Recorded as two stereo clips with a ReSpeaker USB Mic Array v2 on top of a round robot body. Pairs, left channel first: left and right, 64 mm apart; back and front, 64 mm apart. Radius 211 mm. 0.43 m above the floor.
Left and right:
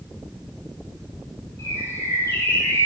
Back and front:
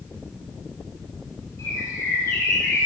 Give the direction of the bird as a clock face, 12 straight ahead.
7 o'clock.